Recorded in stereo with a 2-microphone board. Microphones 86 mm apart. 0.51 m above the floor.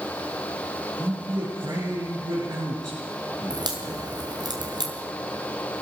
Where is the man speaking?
45° right (ahead or behind), 6.5 m.